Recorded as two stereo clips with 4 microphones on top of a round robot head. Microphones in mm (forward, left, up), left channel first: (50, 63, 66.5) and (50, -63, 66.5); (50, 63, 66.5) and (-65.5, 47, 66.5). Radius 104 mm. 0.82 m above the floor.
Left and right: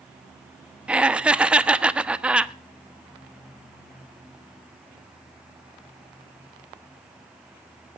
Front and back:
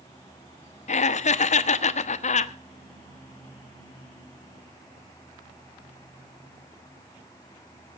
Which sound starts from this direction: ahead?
Laughter, at 0.9 s.